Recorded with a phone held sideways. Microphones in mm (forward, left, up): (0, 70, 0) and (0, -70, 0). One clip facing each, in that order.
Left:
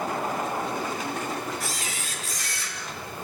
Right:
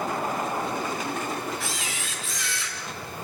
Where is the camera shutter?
40° left (ahead or behind), 4 m.